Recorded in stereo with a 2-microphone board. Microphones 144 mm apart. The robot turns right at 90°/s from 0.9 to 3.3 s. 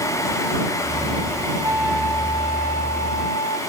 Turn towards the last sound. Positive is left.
turn(degrees=125)